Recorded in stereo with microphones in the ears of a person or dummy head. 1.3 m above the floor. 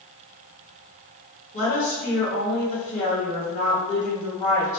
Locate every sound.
1.5 s a woman speaking: 40° left (ahead or behind), 1.2 m